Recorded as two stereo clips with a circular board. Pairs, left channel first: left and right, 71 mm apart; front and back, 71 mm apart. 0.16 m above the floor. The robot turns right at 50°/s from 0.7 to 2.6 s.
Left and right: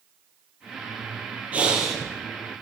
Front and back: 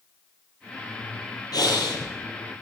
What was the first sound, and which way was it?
Breathing, 20° right.